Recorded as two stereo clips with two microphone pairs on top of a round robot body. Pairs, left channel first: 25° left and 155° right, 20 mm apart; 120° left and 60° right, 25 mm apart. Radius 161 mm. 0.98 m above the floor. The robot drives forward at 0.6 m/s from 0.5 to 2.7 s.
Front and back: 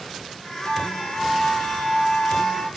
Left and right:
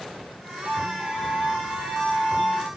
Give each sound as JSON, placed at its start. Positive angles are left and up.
{"t": 0.7, "sound": "a violin", "azimuth_deg": 5, "distance_m": 2.5}